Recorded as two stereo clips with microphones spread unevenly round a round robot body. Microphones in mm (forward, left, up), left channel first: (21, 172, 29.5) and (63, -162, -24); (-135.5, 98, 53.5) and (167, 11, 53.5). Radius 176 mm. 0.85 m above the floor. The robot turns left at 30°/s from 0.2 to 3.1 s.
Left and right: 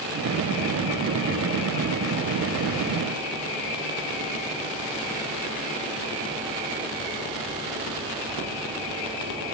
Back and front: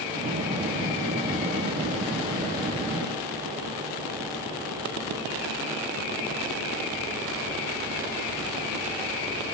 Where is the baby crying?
I don't hear a baby crying.